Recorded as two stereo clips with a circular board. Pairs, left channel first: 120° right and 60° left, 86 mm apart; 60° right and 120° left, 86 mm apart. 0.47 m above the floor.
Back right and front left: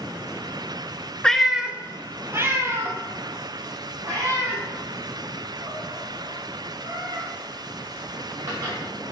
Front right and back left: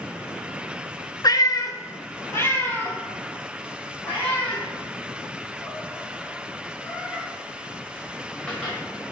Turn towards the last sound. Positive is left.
turn(degrees=15)